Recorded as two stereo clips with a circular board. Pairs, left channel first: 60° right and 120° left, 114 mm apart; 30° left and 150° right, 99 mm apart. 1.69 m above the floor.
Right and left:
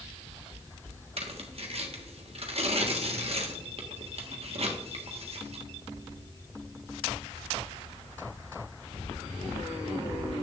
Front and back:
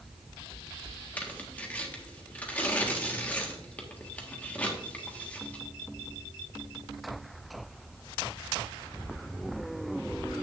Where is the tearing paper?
100° left, 1.4 m.